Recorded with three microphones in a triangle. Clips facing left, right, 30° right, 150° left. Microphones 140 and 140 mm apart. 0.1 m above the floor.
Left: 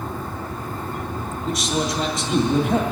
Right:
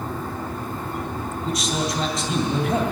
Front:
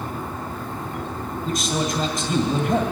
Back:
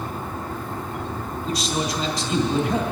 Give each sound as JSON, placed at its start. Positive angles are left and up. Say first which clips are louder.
{"t": 1.4, "sound": "a man speaking", "louder": "left 2 dB, front 1 dB", "azimuth_deg": 0, "distance_m": 2.5}